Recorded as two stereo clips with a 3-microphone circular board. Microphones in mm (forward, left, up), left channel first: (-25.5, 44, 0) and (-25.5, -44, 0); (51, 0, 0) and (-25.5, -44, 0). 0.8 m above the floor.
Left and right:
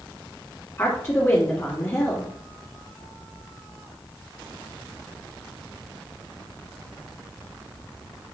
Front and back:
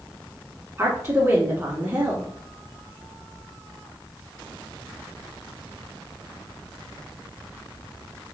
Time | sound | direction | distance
0.8 | a woman speaking | 155° left | 1.6 m